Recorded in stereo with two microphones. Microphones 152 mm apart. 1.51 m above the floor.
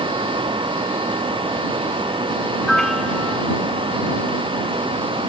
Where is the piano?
Centre (ahead or behind).